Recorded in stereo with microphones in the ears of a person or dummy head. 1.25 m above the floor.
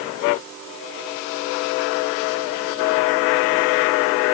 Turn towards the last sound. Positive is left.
No sound to turn to.